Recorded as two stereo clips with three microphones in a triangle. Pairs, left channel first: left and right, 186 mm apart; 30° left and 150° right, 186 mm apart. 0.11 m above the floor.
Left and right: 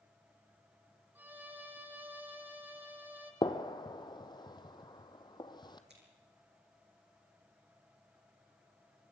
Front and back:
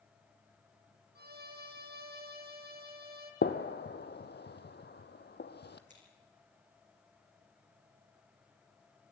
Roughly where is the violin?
Behind.